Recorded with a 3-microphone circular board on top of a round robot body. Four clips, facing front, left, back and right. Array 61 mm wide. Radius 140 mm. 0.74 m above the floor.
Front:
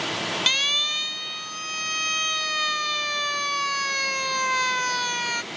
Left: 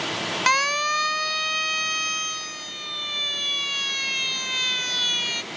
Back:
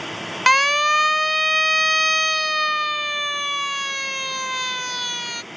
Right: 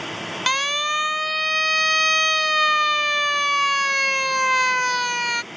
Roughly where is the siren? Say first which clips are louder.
Left 1 dB, back 11 dB; behind.